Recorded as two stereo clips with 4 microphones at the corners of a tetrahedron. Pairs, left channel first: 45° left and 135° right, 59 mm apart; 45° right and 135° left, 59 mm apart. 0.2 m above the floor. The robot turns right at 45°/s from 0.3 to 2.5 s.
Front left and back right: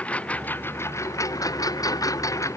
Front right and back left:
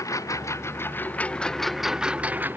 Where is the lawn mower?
20° right; by 2.6 s 80° left.